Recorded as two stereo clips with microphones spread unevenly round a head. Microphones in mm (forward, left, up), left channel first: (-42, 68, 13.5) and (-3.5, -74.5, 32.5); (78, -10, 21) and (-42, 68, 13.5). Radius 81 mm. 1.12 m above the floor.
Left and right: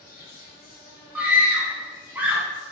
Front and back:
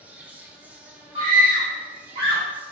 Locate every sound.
0.0 s an insect: 65° left, 0.9 m
1.1 s a scream: 155° right, 1.8 m